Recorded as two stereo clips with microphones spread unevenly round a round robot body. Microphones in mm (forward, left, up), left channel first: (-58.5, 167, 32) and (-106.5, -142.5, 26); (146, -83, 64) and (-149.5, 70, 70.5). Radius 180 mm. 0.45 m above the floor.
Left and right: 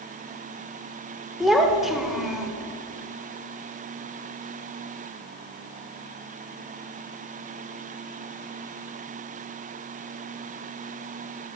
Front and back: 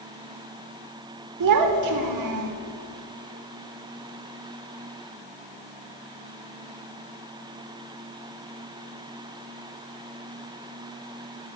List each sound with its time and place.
1.4 s a child speaking: 175° left, 1.2 m